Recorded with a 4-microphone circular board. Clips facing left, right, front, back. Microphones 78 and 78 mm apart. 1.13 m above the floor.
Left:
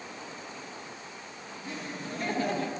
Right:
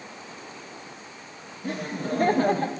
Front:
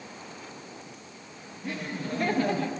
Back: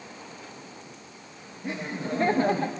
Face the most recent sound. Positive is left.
turn(degrees=-130)